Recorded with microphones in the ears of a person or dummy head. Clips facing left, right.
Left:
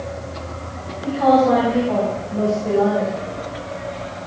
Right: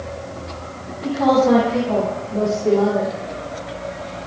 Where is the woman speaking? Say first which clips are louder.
Even; 45° right (ahead or behind), 9.5 m; by 3.2 s 35° right (ahead or behind), 9.5 m.